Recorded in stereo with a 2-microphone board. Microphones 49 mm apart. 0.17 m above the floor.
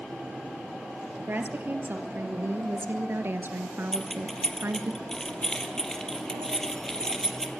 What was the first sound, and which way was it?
A woman speaking, 40° right (ahead or behind).